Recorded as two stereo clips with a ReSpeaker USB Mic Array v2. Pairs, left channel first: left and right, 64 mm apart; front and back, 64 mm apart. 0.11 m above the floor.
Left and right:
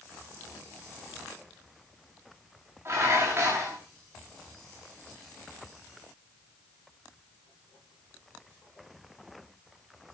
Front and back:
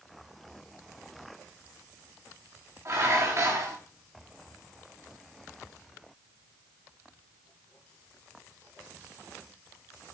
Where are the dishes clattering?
135° right, 7 m.